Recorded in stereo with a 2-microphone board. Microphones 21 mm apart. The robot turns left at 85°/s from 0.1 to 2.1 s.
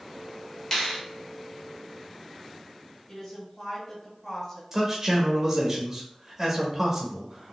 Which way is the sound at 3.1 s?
15° left (ahead or behind).